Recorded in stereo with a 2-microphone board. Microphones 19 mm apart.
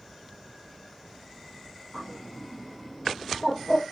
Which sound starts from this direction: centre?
A bird, at 1.9 s.